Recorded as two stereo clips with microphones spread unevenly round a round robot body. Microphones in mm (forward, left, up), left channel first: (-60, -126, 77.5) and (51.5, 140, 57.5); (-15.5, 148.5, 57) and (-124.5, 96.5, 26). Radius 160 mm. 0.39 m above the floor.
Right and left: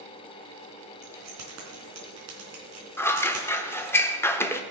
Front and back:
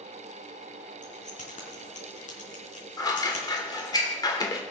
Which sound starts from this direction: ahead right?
Scissors, at 3.0 s.